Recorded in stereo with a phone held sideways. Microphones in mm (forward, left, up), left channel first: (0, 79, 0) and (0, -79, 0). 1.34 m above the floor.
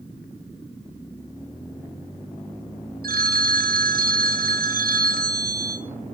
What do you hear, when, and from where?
3.0 s a phone ringing: 70° right (ahead or behind), 0.9 m